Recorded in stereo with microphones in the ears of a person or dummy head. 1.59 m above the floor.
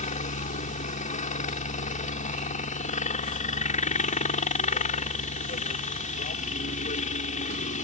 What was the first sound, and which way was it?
A helicopter, 40° left (ahead or behind).